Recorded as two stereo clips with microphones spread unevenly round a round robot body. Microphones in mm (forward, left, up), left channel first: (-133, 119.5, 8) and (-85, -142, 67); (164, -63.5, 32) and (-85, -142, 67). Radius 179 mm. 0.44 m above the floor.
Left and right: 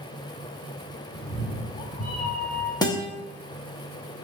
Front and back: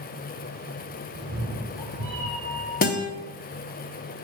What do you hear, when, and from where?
1.1 s a cat meowing: 140° left, 6 m
2.8 s a guitar: 45° left, 1.3 m